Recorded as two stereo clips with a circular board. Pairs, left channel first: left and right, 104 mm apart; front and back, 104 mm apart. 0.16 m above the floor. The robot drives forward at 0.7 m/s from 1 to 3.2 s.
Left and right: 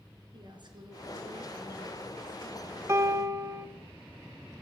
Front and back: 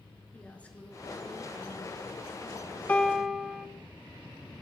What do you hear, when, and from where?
0.3 s a woman speaking: 75° right, 2.5 m; by 3.8 s 115° right, 2.5 m
2.9 s a piano: 65° right, 0.8 m; by 3.7 s 95° right, 0.8 m